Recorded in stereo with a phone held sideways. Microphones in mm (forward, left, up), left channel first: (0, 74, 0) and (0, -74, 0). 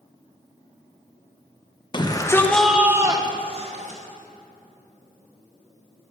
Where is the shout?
30° left (ahead or behind), 0.9 m; by 4.0 s 55° right (ahead or behind), 1.1 m.